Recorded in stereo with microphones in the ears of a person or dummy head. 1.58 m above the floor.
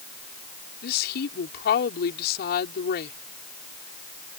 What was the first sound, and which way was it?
A woman speaking, 50° left (ahead or behind).